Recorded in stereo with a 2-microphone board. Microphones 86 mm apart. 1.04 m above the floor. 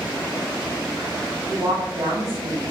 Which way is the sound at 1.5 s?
55° right (ahead or behind).